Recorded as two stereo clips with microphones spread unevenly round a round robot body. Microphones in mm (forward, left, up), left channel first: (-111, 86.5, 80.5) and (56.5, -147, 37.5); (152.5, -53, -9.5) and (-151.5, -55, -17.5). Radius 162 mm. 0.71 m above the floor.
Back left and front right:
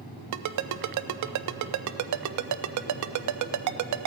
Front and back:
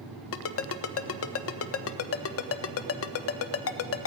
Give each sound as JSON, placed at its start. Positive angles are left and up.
{"t": 0.3, "sound": "a ringtone", "azimuth_deg": -45, "distance_m": 0.6}